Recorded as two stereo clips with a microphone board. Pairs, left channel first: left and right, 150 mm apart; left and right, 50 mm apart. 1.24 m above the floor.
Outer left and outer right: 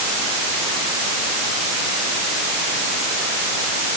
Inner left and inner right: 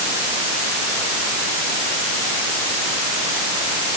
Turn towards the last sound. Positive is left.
No sound to turn to.